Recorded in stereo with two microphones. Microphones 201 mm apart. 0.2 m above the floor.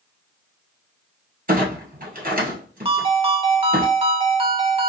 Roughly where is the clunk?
Right.